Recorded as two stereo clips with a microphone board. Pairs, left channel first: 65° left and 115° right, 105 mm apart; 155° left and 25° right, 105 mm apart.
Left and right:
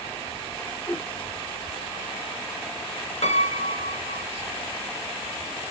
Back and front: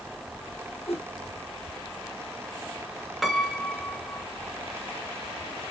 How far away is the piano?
About 0.6 m.